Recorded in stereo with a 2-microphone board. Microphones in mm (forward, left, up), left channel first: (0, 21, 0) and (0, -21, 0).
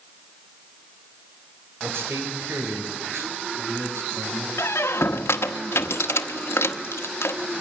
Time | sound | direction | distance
1.8 | a man speaking | 70° right (ahead or behind) | 3 m
4.6 | a squeak | 85° left | 0.9 m